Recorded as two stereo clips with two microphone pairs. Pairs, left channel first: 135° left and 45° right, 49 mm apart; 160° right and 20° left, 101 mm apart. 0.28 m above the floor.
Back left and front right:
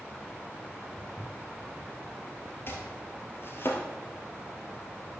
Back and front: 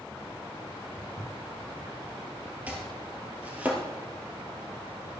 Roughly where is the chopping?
Left.